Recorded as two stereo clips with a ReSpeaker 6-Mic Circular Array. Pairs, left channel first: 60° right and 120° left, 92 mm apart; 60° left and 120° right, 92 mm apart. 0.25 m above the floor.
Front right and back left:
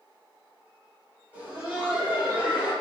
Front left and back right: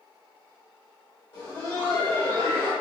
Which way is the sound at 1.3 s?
65° left.